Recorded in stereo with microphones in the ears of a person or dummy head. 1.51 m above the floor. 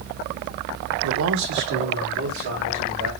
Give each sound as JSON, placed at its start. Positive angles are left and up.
{"t": 1.0, "sound": "a man speaking", "side_deg": -80, "distance_m": 0.9}